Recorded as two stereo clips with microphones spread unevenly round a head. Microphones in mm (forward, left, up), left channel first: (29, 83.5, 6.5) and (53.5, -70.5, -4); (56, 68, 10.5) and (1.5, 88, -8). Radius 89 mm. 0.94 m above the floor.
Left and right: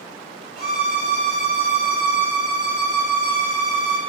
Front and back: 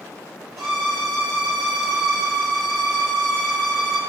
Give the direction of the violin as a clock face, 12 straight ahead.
4 o'clock.